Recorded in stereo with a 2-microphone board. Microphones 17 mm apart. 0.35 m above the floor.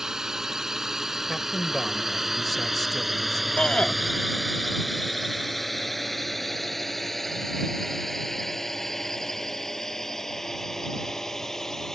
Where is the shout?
75° left (ahead or behind).